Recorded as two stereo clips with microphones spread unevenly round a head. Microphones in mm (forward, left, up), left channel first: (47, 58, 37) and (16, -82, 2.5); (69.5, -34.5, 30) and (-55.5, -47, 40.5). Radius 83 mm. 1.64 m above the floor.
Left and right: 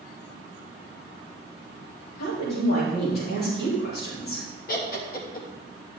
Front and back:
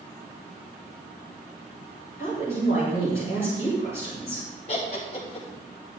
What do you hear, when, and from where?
2.2 s a woman speaking: 60° left, 4 m
4.7 s laughter: 55° left, 2.5 m